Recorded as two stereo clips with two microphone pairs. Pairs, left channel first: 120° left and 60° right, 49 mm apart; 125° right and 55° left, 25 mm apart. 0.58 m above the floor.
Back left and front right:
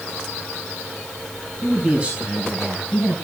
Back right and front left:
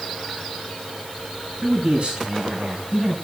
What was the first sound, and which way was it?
A man speaking, 5° left.